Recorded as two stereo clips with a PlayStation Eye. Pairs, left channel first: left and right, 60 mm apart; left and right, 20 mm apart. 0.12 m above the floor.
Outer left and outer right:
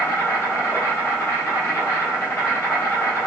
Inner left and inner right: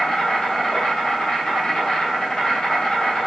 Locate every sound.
0.0 s an insect: 35° left (ahead or behind), 1.9 m